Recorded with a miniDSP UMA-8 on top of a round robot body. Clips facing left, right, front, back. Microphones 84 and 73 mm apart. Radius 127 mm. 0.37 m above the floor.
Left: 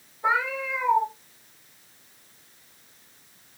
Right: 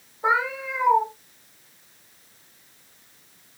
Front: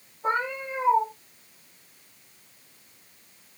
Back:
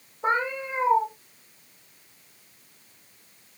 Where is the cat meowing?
155° right, 5 m.